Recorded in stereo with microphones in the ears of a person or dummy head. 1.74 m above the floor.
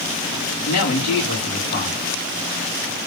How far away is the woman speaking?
About 2.5 m.